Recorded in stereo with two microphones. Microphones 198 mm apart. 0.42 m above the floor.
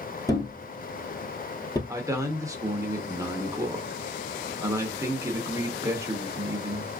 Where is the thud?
20° left (ahead or behind), 1.0 m.